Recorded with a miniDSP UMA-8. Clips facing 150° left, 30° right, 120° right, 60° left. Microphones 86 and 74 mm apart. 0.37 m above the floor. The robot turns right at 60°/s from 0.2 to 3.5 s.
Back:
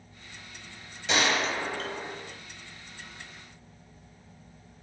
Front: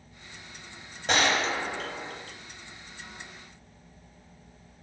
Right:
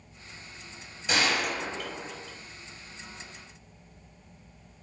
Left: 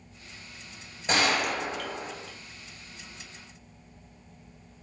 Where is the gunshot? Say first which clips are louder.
Front 1 dB, left 2 dB; 10° left, 0.7 m; by 2.3 s 85° left, 0.7 m.